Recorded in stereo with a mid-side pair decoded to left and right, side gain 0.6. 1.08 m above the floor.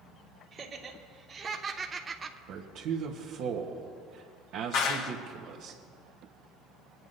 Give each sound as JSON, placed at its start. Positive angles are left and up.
{"t": 0.5, "sound": "laughter", "azimuth_deg": -30, "distance_m": 1.6}
{"t": 2.5, "sound": "a man speaking", "azimuth_deg": -65, "distance_m": 1.2}
{"t": 4.7, "sound": "a clap", "azimuth_deg": 70, "distance_m": 1.4}